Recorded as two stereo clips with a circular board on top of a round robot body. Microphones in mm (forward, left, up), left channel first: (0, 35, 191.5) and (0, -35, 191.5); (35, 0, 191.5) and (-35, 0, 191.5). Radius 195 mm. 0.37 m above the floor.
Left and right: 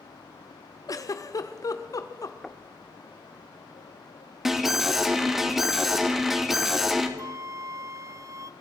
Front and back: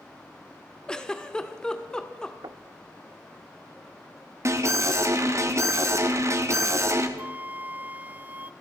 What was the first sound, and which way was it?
A giggle, 75° left.